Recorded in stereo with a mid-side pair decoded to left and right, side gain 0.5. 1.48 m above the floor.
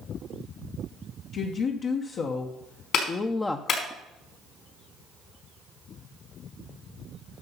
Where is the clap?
60° left, 4.5 m.